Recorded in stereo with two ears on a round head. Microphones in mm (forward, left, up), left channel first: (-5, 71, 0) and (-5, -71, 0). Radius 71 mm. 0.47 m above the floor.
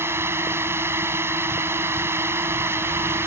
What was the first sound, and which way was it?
A drone, 15° right (ahead or behind).